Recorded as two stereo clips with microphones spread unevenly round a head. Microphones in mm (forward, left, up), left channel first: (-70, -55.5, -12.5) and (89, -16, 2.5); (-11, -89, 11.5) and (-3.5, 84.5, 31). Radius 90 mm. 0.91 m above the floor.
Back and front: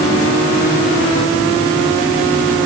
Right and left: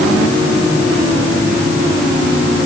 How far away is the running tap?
I don't hear a running tap.